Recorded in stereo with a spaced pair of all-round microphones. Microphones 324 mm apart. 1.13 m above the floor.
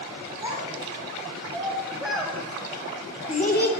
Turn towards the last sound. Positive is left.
turn(degrees=35)  # may be behind; listen again after turning